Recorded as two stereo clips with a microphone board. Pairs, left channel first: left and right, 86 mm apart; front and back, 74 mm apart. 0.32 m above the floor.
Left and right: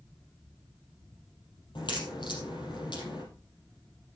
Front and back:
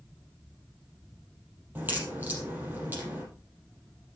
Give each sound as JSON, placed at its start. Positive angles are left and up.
{"t": 1.8, "sound": "a crack", "azimuth_deg": 115, "distance_m": 4.5}